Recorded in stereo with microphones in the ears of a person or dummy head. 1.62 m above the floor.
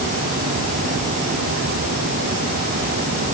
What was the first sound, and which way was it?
Only background noise.